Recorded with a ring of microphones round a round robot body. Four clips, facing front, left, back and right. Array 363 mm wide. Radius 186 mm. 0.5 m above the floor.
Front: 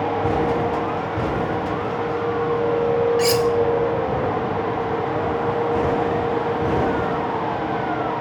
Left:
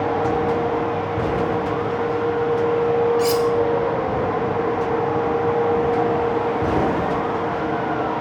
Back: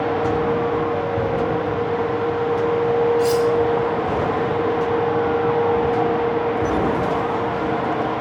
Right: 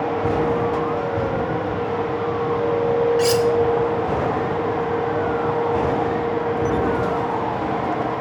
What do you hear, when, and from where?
3.2 s cutlery clinking: 35° right, 1.0 m